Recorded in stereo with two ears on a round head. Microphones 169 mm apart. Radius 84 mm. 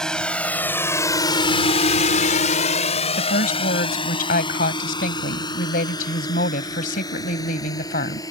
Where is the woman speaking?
50° left (ahead or behind).